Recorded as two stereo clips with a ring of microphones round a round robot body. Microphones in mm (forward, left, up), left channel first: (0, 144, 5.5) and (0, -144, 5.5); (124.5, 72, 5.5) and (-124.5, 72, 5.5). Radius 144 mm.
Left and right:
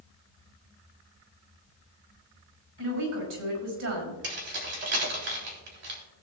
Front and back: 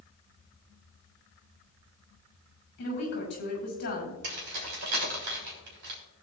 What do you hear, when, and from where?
2.8 s a woman speaking: 55° right, 6 m
4.2 s keys jangling: 145° right, 3.5 m